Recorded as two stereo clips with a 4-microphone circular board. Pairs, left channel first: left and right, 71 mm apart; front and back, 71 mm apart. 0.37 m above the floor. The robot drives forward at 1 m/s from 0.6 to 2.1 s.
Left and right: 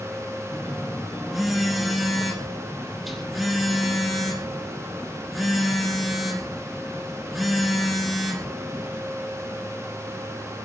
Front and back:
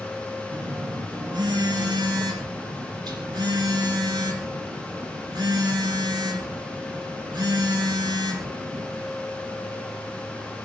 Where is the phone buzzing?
Straight behind, 3.5 m.